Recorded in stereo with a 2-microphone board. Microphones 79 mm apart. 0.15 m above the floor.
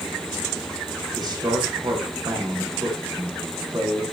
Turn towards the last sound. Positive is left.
turn(degrees=-60)  # may be behind; listen again after turning